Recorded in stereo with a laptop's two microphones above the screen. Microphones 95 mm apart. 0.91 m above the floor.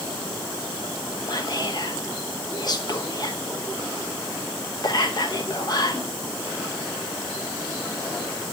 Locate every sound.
1.3 s whispering: 45° left (ahead or behind), 0.9 m